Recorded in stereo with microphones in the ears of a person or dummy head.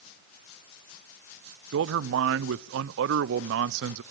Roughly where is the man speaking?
Right.